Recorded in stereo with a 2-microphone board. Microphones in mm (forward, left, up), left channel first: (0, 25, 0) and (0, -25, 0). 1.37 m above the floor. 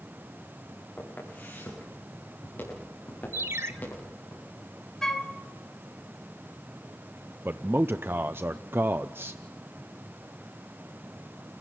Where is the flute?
10° left (ahead or behind), 1.7 m.